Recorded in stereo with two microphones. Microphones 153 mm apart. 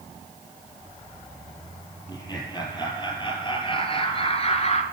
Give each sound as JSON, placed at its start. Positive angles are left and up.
{"t": 2.1, "sound": "laughter", "side_deg": 25, "distance_m": 5.0}